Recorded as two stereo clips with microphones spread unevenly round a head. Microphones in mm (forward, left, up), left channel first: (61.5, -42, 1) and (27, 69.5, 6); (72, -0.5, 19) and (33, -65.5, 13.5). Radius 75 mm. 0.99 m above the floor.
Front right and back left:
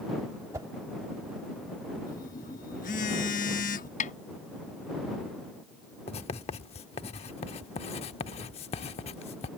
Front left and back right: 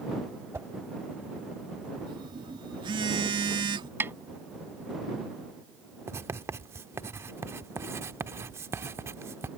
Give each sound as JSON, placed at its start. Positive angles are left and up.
{"t": 0.5, "sound": "a whoosh", "azimuth_deg": 170}
{"t": 2.1, "sound": "a phone buzzing", "azimuth_deg": -110}
{"t": 4.0, "sound": "a snare drum", "azimuth_deg": -60}
{"t": 6.1, "sound": "writing", "azimuth_deg": -75}